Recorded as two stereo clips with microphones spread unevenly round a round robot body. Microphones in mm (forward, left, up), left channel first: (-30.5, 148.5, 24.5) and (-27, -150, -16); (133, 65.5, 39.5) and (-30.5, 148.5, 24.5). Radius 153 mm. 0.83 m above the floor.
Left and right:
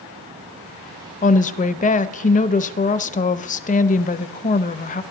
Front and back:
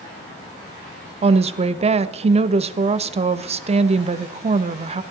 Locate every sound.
1.2 s a woman speaking: 150° left, 0.6 m